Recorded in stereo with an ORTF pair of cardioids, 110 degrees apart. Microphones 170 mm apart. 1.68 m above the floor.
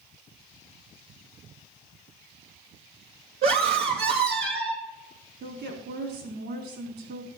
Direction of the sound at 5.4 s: 60° right.